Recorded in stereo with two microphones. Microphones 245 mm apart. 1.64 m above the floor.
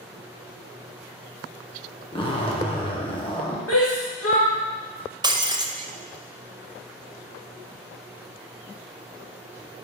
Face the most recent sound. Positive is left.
turn(degrees=-15)  # may be behind; listen again after turning